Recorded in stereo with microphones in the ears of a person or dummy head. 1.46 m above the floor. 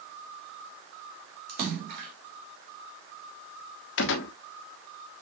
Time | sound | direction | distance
1.5 | a splash | 50° right (ahead or behind) | 1.6 m
4.0 | a gunshot | 75° left (ahead or behind) | 0.9 m